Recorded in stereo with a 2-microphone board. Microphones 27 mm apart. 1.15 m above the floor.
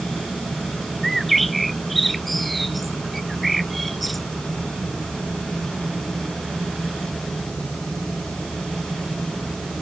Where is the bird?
Centre (ahead or behind).